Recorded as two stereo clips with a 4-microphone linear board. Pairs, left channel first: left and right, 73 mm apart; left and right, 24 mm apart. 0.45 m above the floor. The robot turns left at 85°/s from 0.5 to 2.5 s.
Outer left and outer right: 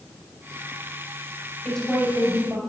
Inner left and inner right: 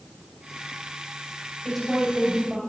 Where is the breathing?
I don't hear breathing.